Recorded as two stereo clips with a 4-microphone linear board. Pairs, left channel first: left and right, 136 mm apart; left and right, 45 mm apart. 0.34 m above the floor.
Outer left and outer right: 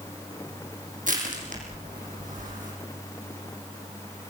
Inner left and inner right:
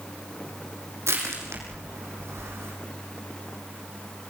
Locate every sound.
1.1 s crushing: 75° right (ahead or behind), 6.5 m